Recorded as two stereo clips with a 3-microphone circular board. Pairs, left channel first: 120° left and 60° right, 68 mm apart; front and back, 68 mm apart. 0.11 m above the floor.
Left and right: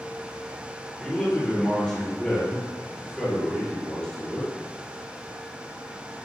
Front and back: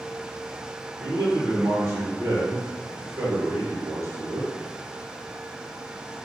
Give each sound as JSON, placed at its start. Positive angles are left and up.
{"t": 1.0, "sound": "a man speaking", "azimuth_deg": -165, "distance_m": 1.7}